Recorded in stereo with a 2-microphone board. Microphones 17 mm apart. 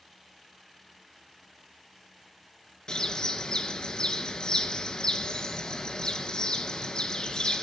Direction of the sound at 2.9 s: 45° left (ahead or behind).